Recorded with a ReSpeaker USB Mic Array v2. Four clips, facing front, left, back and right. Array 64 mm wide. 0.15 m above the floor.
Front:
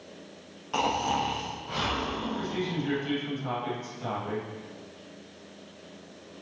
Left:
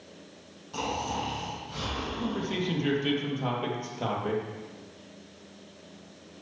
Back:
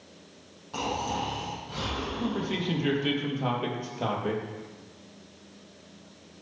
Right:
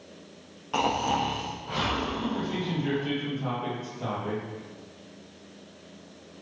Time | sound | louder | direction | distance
0.7 | snoring | right 6 dB, front 4 dB | 60° right | 4.5 m
2.2 | a man speaking | right 1 dB, back 1 dB | 150° left | 4 m